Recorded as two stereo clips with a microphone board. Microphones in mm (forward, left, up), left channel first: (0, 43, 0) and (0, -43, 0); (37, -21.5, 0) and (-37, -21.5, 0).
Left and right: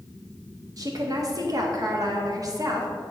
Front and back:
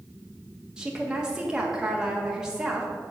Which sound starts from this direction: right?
A woman speaking, at 0.8 s.